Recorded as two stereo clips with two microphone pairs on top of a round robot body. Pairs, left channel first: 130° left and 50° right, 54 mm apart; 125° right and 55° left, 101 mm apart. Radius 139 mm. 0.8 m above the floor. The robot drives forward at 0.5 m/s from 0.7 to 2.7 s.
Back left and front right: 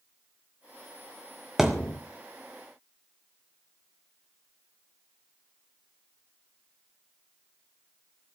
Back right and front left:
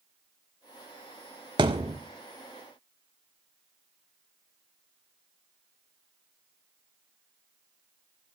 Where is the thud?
35° left, 0.5 m; by 2.0 s 85° left, 0.5 m.